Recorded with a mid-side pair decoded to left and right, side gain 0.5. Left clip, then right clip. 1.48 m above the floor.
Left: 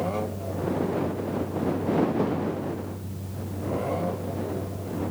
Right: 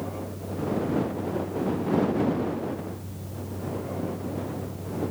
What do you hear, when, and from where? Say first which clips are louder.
0.0 s a fan: left 6 dB; 20° left